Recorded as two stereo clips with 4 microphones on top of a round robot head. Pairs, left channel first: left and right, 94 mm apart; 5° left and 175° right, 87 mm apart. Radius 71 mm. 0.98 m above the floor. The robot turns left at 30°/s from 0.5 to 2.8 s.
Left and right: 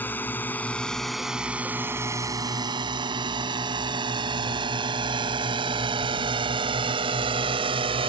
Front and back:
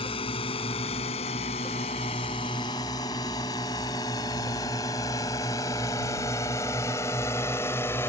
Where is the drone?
20° left; by 8.1 s 65° right.